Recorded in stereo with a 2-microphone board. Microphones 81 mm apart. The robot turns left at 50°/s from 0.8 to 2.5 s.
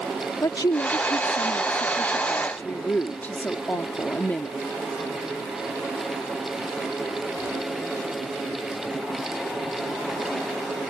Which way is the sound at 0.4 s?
110° left.